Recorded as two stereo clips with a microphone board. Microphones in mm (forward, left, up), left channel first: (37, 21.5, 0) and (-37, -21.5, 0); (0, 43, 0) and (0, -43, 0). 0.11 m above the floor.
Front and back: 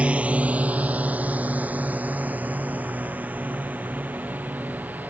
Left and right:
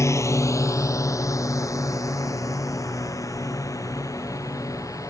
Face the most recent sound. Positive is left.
turn(degrees=140)